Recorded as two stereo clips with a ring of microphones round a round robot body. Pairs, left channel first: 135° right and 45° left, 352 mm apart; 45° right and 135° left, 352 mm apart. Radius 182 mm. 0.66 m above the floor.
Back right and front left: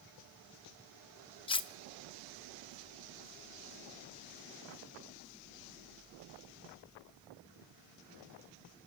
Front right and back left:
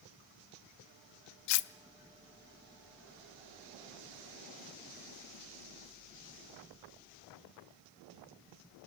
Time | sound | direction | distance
1.5 | cutlery clinking | 60° right | 0.7 m